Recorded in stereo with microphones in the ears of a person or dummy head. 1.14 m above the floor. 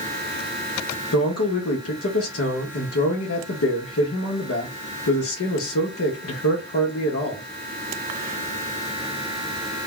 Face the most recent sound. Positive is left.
turn(degrees=65)  # may be behind; listen again after turning